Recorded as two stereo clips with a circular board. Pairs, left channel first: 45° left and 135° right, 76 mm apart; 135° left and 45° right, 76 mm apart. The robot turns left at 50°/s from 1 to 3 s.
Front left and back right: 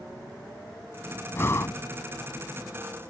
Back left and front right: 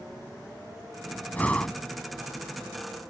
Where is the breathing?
80° left; by 1.8 s 60° left.